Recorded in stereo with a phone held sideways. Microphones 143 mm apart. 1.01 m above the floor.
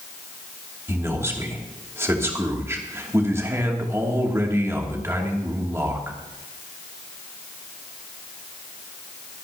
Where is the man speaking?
20° right (ahead or behind), 2.5 m.